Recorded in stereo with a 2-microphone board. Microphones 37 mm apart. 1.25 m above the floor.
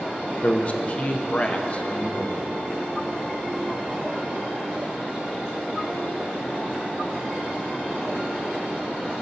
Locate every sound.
0.4 s a man speaking: 35° left (ahead or behind), 0.5 m